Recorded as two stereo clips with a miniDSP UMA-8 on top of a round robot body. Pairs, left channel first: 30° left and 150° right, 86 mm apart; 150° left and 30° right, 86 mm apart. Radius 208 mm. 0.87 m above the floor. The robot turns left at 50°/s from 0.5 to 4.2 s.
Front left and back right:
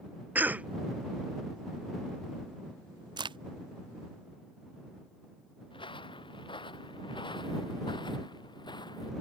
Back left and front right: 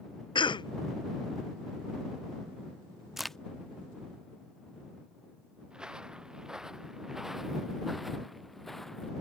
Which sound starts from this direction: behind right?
A crack, at 3.2 s.